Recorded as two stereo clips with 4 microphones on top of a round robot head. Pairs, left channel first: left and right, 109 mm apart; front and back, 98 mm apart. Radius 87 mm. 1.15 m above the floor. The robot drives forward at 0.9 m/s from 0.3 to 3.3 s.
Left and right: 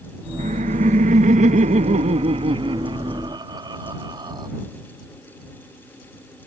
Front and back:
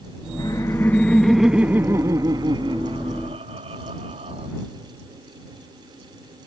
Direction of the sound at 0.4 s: 65° right.